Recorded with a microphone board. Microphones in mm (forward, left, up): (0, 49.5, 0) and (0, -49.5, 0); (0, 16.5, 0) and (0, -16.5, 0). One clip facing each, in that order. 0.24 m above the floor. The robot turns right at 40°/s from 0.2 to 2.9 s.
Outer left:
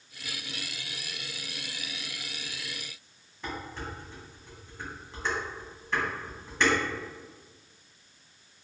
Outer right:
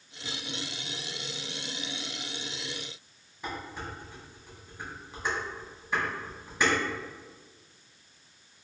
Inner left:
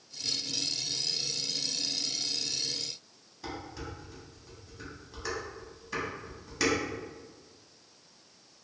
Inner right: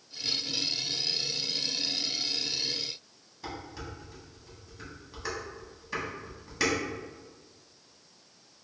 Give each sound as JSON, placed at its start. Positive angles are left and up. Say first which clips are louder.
{"t": 3.4, "sound": "dishes clattering", "louder": "even, even", "side_deg": -10, "distance_m": 1.1}